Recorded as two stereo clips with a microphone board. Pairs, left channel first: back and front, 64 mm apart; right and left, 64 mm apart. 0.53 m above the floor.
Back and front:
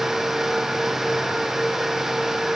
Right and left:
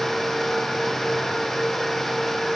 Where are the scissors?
I don't hear scissors.